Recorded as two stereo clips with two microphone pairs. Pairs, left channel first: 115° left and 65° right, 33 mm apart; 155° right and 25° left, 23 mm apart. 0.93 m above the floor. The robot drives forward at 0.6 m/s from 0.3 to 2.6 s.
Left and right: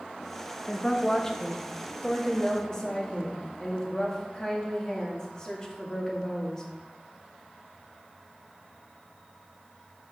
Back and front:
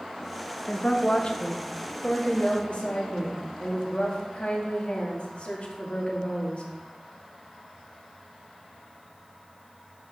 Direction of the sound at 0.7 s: 175° left.